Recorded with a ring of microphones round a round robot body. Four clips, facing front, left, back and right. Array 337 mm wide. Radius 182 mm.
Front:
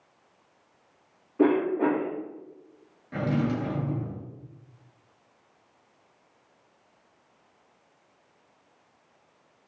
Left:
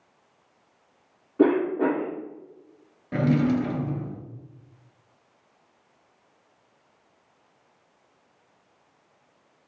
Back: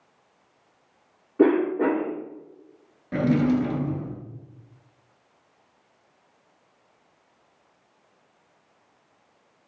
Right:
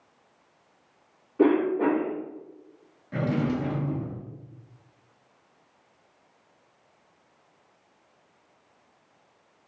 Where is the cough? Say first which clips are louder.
Left 1 dB, back 3 dB; 145° left, 1.1 m.